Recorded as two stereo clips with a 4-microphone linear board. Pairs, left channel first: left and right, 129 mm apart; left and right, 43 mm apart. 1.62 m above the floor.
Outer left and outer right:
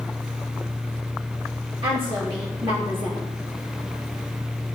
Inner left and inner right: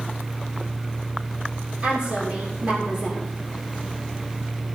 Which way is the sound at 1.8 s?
40° right (ahead or behind).